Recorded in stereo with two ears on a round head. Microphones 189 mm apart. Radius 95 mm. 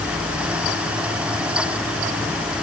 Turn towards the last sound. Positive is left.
No sound to turn to.